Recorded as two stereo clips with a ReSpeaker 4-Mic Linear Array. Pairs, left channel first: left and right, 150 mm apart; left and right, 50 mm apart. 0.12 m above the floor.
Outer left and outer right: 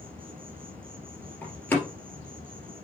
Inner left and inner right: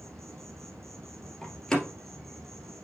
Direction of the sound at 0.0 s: 80° right.